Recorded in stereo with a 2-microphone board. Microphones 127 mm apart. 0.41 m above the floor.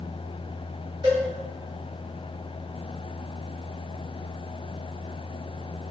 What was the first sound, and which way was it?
A cowbell, 35° right (ahead or behind).